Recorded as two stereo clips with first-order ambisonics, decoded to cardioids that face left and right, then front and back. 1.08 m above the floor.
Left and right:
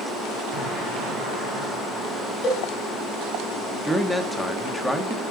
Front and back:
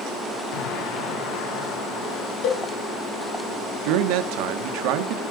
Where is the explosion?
25° right, 5 m.